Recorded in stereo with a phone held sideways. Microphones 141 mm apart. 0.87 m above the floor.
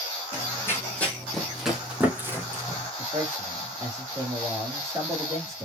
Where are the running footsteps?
20° left (ahead or behind), 2.5 m; by 2.9 s 25° right (ahead or behind), 2.5 m.